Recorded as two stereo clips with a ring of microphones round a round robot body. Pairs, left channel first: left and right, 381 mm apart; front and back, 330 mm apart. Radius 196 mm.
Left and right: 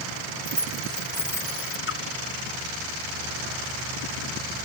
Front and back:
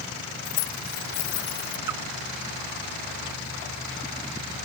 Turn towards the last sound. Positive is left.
turn(degrees=150)